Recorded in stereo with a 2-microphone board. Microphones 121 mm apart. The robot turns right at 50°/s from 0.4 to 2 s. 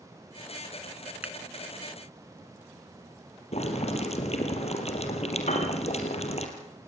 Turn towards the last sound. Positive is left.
turn(degrees=70)  # may be behind; listen again after turning